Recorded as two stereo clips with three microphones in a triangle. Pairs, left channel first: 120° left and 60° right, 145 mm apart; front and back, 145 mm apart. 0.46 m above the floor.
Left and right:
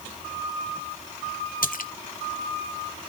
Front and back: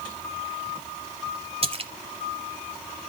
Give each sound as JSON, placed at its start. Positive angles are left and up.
{"t": 1.6, "sound": "a splash", "azimuth_deg": 135, "distance_m": 0.8}